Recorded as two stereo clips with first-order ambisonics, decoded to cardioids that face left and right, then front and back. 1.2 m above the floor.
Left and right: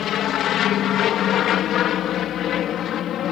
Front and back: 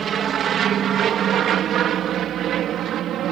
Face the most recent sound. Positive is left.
turn(degrees=135)